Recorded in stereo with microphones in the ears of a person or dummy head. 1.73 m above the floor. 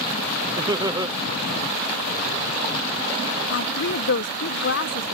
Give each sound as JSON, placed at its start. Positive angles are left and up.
{"t": 0.6, "sound": "laughter", "side_deg": -15}
{"t": 3.5, "sound": "a woman speaking", "side_deg": 65}